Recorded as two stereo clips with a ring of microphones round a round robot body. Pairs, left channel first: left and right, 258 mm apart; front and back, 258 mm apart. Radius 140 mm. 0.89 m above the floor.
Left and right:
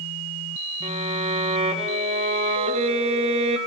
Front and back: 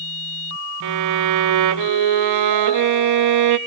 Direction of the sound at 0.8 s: 160° right.